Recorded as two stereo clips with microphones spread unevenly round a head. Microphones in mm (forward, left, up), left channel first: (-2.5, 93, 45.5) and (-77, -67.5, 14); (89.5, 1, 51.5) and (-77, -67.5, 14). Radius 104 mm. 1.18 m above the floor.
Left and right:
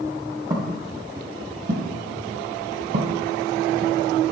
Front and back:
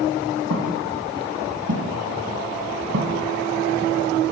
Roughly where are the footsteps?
Behind.